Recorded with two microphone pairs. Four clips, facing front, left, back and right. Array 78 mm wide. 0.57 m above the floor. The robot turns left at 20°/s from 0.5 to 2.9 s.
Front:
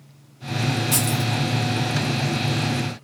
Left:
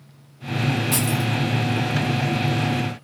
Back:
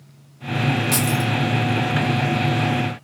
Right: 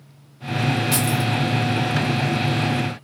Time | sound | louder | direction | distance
0.9 | keys jangling | right 1 dB, back 3 dB | 155° right | 1.2 m